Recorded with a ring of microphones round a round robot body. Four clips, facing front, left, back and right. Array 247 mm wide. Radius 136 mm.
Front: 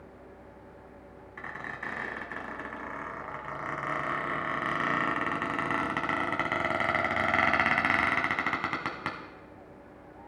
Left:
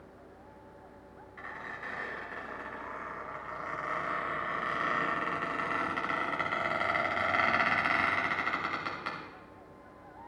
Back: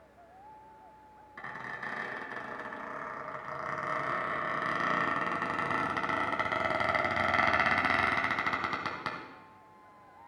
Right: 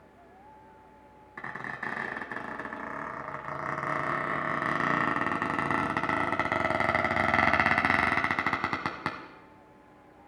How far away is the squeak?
About 1.0 m.